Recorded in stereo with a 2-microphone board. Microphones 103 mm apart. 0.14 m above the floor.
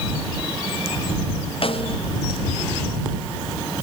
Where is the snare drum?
60° left (ahead or behind).